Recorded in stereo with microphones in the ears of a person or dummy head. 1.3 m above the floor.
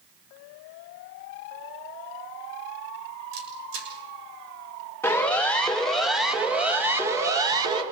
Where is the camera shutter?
75° right (ahead or behind), 6.5 m.